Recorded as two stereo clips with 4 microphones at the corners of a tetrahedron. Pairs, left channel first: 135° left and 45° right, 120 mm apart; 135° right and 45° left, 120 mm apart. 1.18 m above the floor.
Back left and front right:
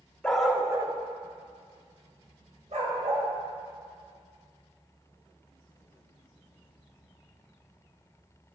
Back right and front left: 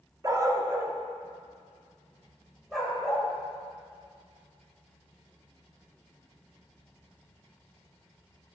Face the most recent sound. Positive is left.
turn(degrees=-50)